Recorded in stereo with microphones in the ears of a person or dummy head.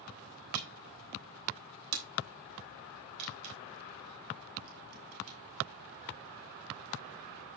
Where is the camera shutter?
80° right, 3.5 m.